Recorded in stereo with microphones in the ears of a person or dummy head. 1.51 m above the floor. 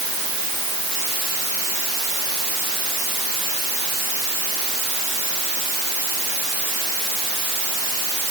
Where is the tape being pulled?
No tape being pulled in this recording.